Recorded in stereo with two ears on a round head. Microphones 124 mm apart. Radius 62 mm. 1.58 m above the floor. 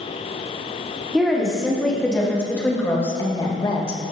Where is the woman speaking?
Centre (ahead or behind), 3.5 m; by 4.0 s 40° left (ahead or behind), 1.5 m.